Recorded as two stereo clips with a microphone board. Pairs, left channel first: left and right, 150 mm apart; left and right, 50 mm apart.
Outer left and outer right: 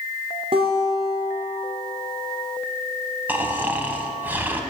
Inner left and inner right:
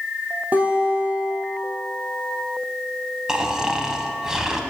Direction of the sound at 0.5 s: 35° right (ahead or behind).